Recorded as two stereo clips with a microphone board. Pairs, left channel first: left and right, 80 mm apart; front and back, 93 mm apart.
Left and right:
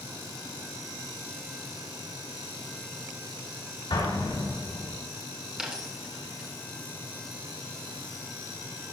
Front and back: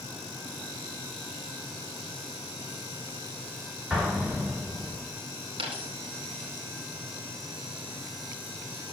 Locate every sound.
3.9 s an explosion: 100° left, 3.5 m
5.6 s a dropped coin: 170° right, 3 m